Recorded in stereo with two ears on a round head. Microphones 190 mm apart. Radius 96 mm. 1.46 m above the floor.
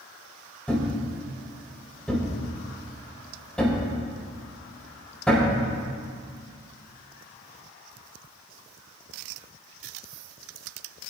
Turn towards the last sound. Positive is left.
turn(degrees=5)  # may be behind; listen again after turning